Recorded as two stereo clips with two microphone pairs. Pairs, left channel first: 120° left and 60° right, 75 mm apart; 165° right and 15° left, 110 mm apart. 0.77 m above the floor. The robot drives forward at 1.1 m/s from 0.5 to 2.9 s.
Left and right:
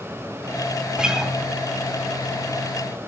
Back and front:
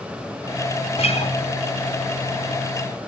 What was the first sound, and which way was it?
A guitar, 135° right.